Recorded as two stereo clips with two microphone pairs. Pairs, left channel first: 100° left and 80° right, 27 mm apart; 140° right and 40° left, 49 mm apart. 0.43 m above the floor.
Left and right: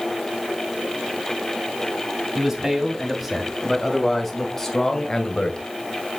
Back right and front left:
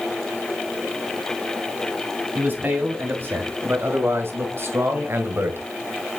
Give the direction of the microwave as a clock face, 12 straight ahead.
No microwave in this recording.